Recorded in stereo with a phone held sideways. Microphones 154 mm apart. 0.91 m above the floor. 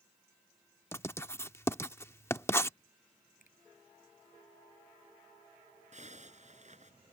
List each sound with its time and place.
0.9 s writing: 15° left (ahead or behind)
3.4 s a finger snap: 65° left (ahead or behind)
5.9 s a zipper: 50° right (ahead or behind)